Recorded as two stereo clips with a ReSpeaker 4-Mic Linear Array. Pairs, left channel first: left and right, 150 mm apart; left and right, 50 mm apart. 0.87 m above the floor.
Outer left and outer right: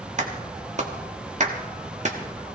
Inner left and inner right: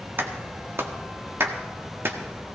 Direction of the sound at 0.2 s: 55° right (ahead or behind).